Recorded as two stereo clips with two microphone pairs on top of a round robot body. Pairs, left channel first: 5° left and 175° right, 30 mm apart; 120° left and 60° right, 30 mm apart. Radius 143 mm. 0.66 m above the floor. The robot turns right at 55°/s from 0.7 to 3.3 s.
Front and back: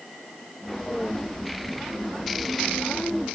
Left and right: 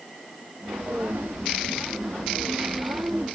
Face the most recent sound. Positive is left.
No sound to turn to.